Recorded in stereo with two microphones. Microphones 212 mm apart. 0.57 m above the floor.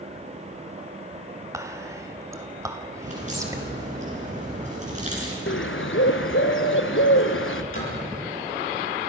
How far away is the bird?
About 1.3 m.